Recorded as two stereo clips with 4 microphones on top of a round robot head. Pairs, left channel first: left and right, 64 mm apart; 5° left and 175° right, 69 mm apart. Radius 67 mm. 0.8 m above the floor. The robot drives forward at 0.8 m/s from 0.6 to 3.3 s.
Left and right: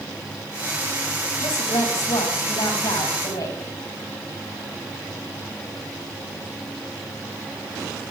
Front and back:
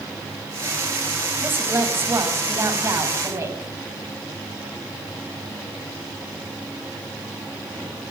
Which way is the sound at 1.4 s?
125° left.